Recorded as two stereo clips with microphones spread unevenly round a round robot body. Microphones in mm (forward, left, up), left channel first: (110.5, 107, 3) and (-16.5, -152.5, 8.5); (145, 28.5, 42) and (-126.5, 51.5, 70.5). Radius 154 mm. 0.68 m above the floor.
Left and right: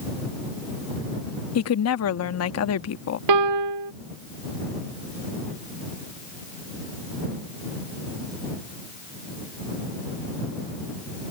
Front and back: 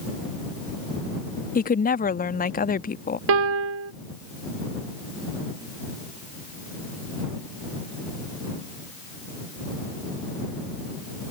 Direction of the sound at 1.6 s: 45° left.